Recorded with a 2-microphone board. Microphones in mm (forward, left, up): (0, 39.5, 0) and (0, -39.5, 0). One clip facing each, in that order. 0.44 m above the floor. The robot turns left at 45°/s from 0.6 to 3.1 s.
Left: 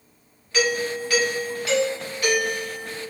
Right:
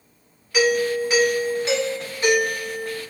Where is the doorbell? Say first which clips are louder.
Right 4 dB; 25° right, 1.6 m; by 3.0 s 135° right, 1.6 m.